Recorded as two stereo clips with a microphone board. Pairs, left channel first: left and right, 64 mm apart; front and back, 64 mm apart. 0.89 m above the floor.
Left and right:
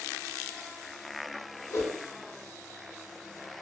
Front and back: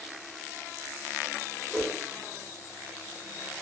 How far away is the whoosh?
About 0.7 m.